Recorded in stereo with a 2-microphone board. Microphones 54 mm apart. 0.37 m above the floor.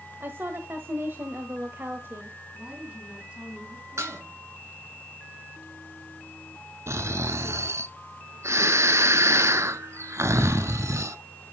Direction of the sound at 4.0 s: 80° right.